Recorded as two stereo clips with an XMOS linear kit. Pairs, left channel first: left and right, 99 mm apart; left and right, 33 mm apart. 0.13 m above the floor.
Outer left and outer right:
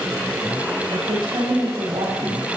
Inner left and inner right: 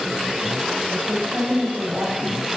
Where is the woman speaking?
50° right (ahead or behind), 5 m.